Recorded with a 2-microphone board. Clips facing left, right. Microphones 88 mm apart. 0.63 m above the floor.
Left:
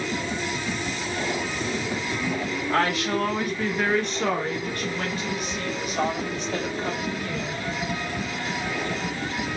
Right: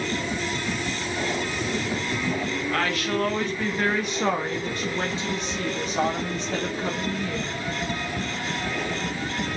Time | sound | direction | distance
2.7 | a woman speaking | 25° left (ahead or behind) | 0.9 m